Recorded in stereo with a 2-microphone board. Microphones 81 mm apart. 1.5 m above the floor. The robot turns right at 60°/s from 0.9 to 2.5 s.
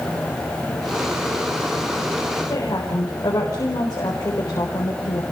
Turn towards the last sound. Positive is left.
turn(degrees=50)  # may be behind; listen again after turning